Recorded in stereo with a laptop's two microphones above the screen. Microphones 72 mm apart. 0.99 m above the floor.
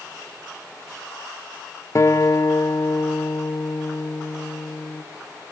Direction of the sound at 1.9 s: 45° left (ahead or behind).